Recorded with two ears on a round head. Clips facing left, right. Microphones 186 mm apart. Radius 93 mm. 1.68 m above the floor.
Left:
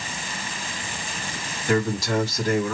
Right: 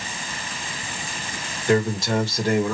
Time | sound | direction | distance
1.7 | a man speaking | 20° right (ahead or behind) | 1.8 m